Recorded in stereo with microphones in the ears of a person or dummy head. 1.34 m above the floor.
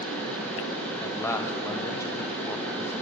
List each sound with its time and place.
0.0 s a fan: 5° left (ahead or behind), 1.6 m
1.0 s a man speaking: 15° left (ahead or behind), 0.6 m